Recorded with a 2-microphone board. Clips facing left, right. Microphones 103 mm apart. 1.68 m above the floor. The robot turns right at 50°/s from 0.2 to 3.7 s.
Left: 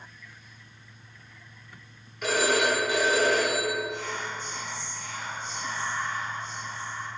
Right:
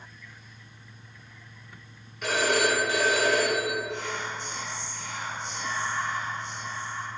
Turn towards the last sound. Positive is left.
turn(degrees=-70)  # may be behind; listen again after turning